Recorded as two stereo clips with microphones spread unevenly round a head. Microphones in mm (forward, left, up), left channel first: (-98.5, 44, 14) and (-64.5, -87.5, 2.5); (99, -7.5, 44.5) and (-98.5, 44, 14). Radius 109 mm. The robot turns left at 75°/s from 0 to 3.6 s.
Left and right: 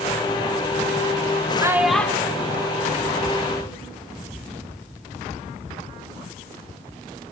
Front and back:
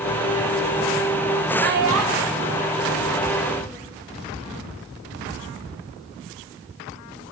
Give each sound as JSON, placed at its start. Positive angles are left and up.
{"t": 1.6, "sound": "a child speaking", "azimuth_deg": -140, "distance_m": 1.4}